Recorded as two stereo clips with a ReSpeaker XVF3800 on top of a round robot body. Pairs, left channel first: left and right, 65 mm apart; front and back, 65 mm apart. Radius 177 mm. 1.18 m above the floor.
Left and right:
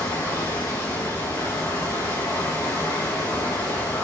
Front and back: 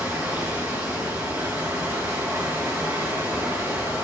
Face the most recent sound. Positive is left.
turn(degrees=120)